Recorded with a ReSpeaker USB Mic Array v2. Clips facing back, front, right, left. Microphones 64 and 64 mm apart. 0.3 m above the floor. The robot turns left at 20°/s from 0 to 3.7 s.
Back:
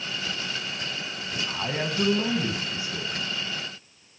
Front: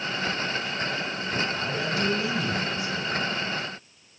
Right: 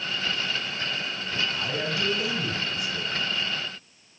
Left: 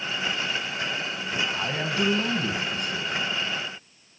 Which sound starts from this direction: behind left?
A man speaking, at 1.5 s.